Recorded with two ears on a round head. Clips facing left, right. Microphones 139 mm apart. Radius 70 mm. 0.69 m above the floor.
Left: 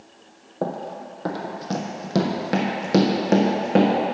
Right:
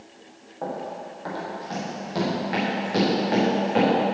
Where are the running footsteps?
60° left (ahead or behind), 1.2 m; by 3.9 s 50° left (ahead or behind), 2.5 m.